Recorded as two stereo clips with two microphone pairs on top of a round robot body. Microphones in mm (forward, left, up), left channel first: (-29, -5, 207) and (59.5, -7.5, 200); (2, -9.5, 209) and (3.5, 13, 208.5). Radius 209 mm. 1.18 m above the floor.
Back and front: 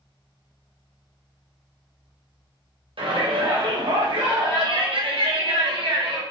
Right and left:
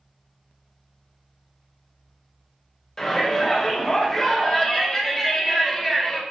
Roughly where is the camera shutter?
I don't hear a camera shutter.